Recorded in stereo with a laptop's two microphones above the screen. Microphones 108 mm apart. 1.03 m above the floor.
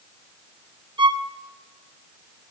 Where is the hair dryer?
No hair dryer in this recording.